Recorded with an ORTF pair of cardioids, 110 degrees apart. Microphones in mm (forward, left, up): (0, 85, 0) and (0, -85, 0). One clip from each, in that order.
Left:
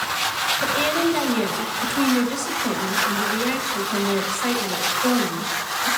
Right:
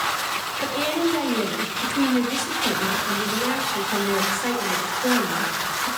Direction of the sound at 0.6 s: 5° left.